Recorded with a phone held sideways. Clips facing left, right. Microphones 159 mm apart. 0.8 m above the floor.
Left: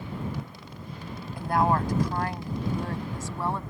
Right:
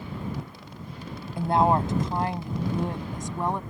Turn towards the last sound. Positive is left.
turn(degrees=-15)  # may be behind; listen again after turning